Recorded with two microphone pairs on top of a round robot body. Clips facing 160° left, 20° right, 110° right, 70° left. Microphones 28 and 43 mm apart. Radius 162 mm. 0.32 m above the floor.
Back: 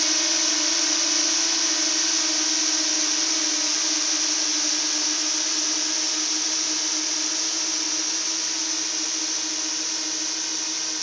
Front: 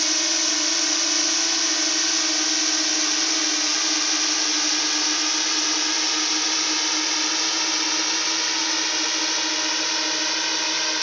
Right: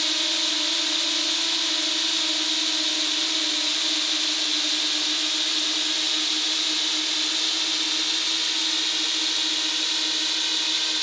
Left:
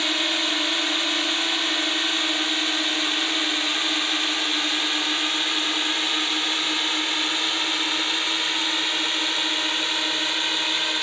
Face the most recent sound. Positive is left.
turn(degrees=15)